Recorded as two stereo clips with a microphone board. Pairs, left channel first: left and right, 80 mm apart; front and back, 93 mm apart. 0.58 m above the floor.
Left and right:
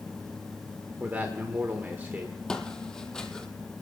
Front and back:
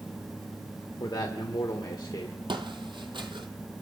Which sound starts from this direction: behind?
Footsteps, at 2.5 s.